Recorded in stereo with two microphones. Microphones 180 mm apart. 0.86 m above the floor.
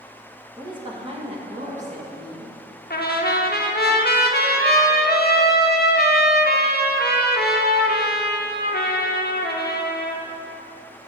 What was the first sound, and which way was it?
A woman speaking, 20° right (ahead or behind).